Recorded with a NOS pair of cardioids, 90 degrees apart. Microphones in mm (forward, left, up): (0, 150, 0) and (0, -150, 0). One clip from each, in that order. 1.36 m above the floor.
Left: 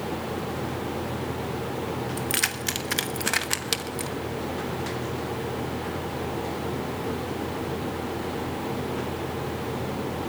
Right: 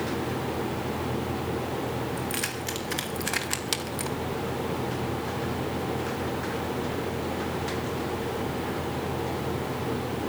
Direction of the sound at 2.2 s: 45° left.